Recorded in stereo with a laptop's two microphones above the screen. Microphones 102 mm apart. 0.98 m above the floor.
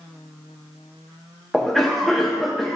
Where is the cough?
5° left (ahead or behind), 0.6 m.